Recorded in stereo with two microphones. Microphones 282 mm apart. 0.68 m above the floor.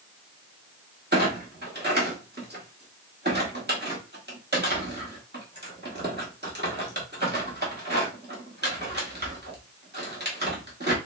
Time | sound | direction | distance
1.1 | a clunk | 35° right (ahead or behind) | 1.2 m